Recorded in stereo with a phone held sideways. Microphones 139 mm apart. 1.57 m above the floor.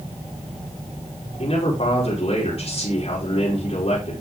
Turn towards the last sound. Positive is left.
turn(degrees=50)  # may be behind; listen again after turning